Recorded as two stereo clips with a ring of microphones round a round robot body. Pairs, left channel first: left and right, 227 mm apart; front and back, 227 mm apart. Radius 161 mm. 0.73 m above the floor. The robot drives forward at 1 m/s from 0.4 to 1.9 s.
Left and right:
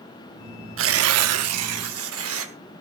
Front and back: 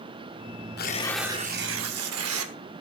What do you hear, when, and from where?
0.8 s tearing paper: 60° right, 0.8 m; by 2.5 s 135° right, 1.0 m